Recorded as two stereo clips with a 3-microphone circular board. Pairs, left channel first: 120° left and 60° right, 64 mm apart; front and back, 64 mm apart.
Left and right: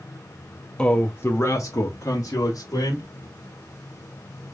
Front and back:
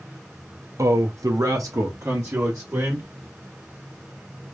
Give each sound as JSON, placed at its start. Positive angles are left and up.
{"t": 0.8, "sound": "a man speaking", "azimuth_deg": -165, "distance_m": 0.6}